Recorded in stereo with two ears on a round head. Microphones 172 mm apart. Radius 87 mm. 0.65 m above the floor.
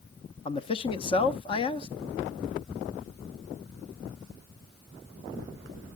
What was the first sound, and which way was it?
A man speaking, 25° left (ahead or behind).